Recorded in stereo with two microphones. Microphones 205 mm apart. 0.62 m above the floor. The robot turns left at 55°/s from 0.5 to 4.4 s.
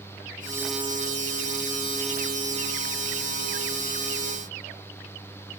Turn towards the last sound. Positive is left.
No sound to turn to.